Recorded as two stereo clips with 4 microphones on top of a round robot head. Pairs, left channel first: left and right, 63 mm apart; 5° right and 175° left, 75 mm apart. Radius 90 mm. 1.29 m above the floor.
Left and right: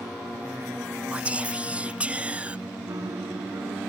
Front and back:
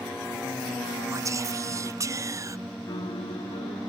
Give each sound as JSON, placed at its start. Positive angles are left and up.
{"t": 1.1, "sound": "whispering", "azimuth_deg": -155}
{"t": 2.9, "sound": "a piano", "azimuth_deg": -40}